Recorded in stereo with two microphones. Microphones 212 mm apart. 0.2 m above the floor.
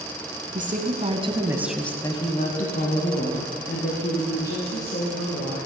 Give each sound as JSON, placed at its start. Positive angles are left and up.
{"t": 0.6, "sound": "a woman speaking", "side_deg": -40, "distance_m": 2.0}